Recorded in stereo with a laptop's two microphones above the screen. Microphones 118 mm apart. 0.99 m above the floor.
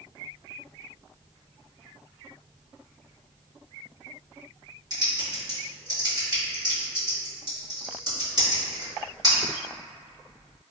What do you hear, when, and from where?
4.9 s typing on a keyboard: 35° right (ahead or behind), 1.4 m